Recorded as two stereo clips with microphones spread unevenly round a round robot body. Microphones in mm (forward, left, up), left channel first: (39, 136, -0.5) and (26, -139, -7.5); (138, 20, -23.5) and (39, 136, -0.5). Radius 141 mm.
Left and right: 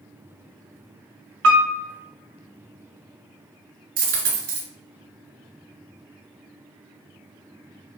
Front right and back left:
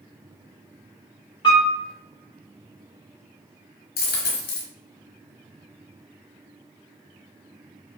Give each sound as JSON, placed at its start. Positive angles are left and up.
{"t": 1.4, "sound": "a piano", "azimuth_deg": -100, "distance_m": 0.7}
{"t": 4.0, "sound": "a dropped coin", "azimuth_deg": -45, "distance_m": 1.8}